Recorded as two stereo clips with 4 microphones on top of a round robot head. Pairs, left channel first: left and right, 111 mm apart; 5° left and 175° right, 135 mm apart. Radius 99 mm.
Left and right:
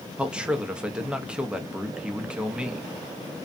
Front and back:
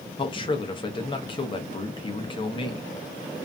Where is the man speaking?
15° right, 0.7 m.